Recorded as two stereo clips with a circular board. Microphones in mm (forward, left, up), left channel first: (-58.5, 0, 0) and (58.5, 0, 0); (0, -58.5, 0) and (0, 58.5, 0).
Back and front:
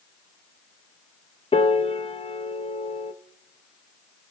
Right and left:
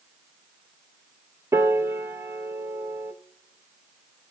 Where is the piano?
155° left, 0.5 m.